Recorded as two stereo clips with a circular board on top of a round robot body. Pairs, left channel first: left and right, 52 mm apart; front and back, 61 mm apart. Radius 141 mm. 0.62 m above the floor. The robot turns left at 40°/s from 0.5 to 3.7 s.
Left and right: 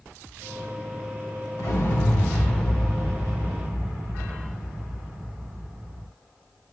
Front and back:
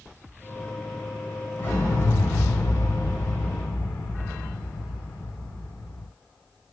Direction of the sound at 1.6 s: 55° left.